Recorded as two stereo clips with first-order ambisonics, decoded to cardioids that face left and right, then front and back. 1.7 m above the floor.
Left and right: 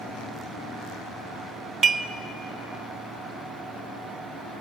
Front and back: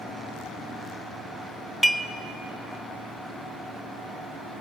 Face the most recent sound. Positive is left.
turn(degrees=-90)